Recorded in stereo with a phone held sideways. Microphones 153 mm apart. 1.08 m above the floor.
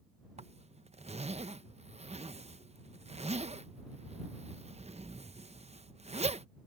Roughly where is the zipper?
Right.